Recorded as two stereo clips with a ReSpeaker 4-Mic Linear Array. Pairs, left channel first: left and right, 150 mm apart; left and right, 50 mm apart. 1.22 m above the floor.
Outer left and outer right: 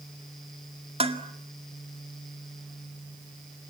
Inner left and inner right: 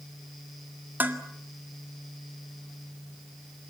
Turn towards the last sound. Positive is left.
turn(degrees=-40)  # may be behind; listen again after turning